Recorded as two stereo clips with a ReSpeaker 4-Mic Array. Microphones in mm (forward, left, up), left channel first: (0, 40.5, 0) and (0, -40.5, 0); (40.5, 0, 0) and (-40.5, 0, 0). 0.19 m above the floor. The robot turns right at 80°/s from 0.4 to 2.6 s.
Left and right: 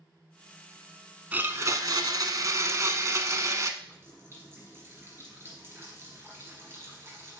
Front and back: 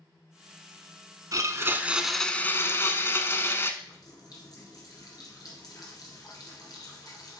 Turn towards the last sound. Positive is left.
turn(degrees=-35)